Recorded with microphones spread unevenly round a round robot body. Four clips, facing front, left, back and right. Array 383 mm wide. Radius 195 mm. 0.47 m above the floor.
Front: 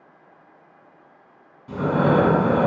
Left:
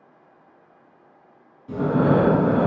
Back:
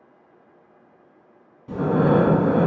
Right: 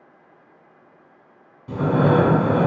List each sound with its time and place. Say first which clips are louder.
1.7 s breathing: right 1 dB, back 1 dB; 95° right, 1.3 m